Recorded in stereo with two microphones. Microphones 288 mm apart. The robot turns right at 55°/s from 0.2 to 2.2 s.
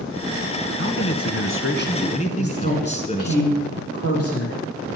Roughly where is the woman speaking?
Left.